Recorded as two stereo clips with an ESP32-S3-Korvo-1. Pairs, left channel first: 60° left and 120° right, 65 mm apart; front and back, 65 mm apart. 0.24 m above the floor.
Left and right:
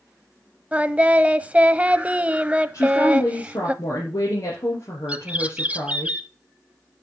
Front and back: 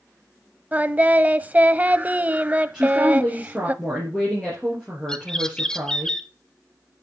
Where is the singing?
155° right, 0.6 m.